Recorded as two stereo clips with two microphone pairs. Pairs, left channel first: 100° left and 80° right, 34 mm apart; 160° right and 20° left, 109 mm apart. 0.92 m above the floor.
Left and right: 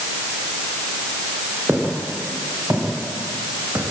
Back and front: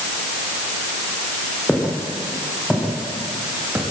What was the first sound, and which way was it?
Footsteps, 75° right.